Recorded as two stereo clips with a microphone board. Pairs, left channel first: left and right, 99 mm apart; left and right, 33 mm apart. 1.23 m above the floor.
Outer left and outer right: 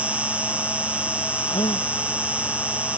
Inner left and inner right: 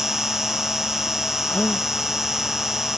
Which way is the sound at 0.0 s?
15° right (ahead or behind).